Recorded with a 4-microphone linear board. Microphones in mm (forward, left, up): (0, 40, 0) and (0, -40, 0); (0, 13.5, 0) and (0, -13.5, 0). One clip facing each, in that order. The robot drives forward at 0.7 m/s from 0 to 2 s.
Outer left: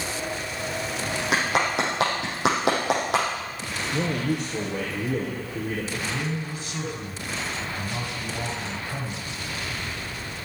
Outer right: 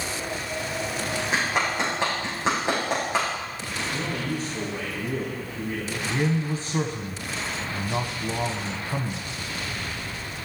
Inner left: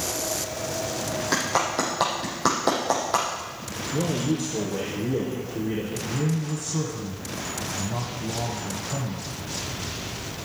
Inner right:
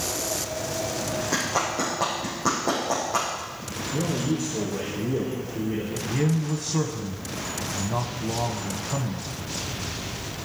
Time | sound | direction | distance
1.3 | a clap | 70° left (ahead or behind) | 7 m
3.9 | a man speaking | 75° left (ahead or behind) | 5.5 m
6.1 | a man speaking | 35° right (ahead or behind) | 1.3 m